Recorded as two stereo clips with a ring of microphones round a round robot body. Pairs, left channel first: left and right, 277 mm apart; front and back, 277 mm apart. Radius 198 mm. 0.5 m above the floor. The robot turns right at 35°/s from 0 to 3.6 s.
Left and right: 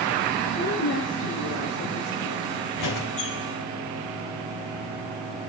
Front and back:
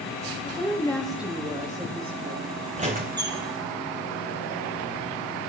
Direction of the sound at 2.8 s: 110° left.